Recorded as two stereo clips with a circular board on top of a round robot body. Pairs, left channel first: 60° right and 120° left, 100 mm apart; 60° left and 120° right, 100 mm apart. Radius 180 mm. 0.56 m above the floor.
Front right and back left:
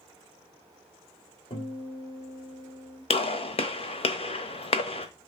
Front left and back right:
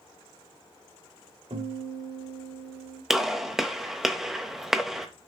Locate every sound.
1.5 s a guitar: 90° right, 4 m
3.1 s a gunshot: 35° right, 1.0 m